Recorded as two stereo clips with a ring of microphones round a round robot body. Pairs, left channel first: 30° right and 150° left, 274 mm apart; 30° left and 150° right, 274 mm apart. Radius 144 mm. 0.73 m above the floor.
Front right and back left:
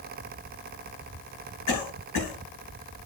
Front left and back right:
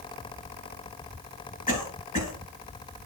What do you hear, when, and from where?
1.7 s a cough: 35° right, 9 m